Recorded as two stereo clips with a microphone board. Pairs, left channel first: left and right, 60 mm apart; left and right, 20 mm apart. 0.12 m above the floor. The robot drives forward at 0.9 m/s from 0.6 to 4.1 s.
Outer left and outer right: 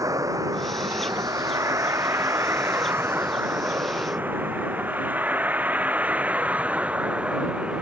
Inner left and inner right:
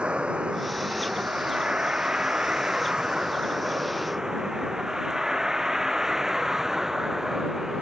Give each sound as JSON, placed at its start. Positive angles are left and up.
{"t": 0.0, "sound": "a vehicle", "side_deg": -70}